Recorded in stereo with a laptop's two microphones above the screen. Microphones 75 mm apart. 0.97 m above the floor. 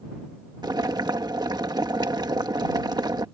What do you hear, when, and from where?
0.6 s boiling: 70° right (ahead or behind)